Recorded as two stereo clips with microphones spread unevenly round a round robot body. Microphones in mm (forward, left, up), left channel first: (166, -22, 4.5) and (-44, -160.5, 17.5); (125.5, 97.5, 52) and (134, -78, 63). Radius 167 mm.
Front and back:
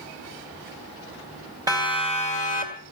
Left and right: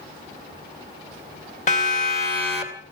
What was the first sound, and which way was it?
A siren, 135° left.